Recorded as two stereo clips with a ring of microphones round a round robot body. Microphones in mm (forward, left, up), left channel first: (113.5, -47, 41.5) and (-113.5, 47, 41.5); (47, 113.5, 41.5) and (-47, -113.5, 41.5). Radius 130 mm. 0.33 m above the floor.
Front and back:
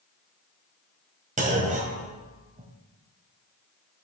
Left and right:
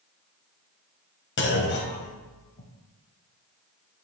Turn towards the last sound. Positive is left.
turn(degrees=100)